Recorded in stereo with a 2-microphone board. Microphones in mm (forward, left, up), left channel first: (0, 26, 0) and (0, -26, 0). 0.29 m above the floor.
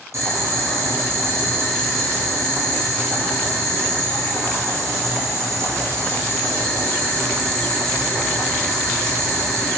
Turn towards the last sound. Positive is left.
turn(degrees=-70)  # may be behind; listen again after turning